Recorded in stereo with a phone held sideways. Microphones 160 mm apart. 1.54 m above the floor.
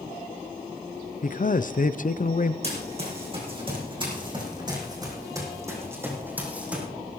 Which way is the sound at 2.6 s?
40° right (ahead or behind).